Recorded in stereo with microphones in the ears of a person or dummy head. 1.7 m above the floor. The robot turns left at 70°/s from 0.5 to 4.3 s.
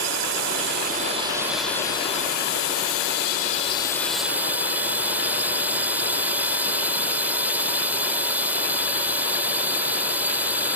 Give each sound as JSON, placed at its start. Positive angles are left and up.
{"t": 0.0, "sound": "a drone", "azimuth_deg": -100}